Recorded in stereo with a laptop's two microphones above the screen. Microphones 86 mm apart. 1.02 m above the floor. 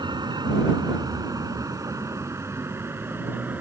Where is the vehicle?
60° right (ahead or behind); by 3.6 s 25° right (ahead or behind).